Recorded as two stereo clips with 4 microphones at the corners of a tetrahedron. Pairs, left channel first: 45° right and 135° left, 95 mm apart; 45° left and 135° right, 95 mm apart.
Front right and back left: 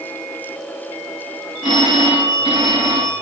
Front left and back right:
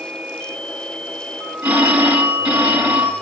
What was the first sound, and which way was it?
A phone ringing, 145° left.